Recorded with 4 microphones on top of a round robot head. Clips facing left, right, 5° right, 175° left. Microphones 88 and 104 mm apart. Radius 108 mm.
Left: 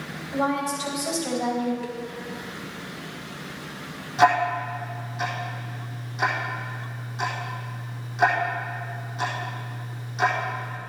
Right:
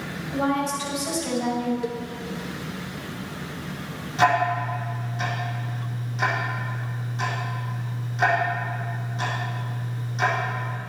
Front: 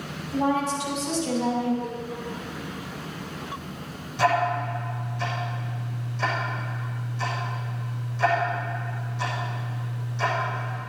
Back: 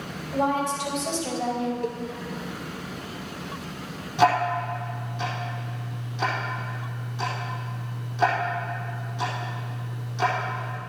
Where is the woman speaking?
165° left, 5.5 m; by 1.7 s 160° left, 4 m.